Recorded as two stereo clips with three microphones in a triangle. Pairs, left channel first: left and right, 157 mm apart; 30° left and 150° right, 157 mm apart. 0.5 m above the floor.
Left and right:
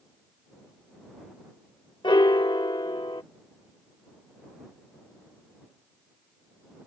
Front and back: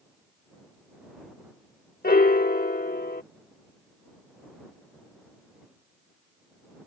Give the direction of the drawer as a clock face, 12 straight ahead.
I don't hear a drawer.